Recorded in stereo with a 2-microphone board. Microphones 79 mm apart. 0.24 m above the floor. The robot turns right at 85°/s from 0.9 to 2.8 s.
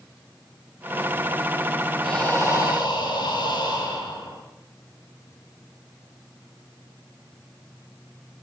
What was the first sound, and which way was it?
Breathing, straight ahead.